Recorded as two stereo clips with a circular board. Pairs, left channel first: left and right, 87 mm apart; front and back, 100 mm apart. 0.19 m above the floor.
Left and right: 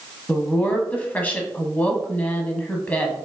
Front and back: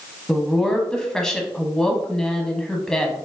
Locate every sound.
0.3 s a woman speaking: 70° left, 1.0 m